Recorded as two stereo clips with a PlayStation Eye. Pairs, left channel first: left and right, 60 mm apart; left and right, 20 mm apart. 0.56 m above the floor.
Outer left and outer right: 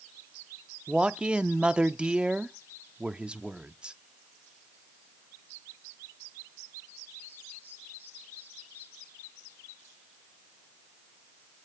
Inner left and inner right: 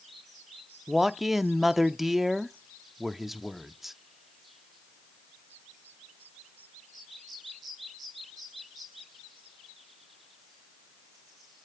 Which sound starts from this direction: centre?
A man speaking, at 0.9 s.